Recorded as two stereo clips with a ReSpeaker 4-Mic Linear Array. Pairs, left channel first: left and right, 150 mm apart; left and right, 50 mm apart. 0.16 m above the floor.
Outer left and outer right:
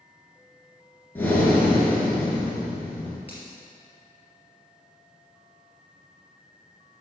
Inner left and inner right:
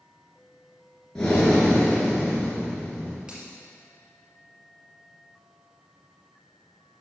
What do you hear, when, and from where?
1.1 s breathing: 15° left (ahead or behind), 3 m
3.3 s a finger snap: 15° right (ahead or behind), 3.5 m